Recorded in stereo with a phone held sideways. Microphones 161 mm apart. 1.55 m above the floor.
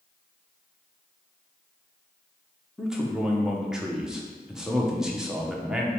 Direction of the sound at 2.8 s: 5° right (ahead or behind).